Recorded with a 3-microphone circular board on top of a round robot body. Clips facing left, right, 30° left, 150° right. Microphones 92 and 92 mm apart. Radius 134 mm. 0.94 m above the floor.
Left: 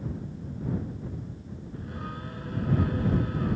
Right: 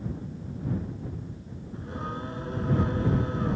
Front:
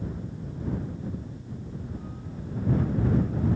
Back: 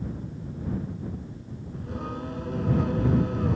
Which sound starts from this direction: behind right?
Singing, at 1.7 s.